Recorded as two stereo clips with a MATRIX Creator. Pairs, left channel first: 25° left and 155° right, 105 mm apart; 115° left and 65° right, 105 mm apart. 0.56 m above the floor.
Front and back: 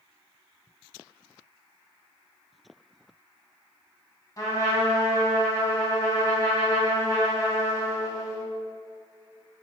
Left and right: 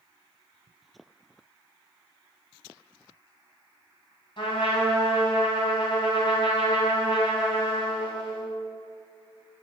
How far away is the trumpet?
About 3 m.